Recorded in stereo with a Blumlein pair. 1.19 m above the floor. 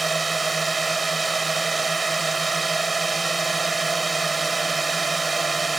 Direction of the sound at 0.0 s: 10° right.